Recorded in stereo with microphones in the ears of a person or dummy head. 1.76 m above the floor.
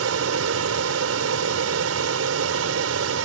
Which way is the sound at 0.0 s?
75° right (ahead or behind).